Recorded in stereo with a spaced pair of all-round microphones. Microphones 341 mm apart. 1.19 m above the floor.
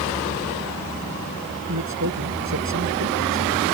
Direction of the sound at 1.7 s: 55° right (ahead or behind).